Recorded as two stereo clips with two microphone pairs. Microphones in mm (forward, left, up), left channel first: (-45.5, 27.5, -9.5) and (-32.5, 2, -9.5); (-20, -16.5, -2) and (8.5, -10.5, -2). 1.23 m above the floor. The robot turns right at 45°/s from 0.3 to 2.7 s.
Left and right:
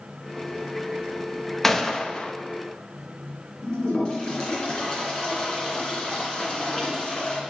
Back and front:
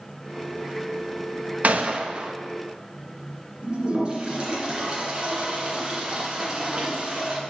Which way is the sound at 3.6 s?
65° left.